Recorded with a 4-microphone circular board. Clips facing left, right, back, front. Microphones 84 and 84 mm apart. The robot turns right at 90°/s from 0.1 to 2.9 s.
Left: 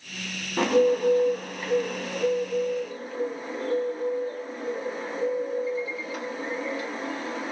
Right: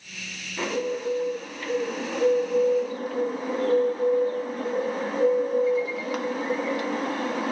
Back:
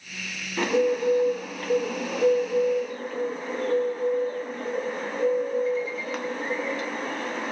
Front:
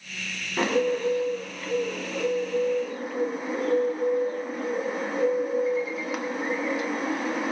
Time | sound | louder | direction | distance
0.6 | a bird | left 7 dB, back 1 dB | 65° left | 0.7 m